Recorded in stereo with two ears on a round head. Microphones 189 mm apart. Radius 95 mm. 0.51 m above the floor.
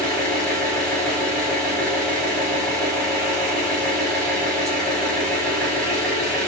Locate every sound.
0.0 s an engine running: 5° left (ahead or behind), 1.6 m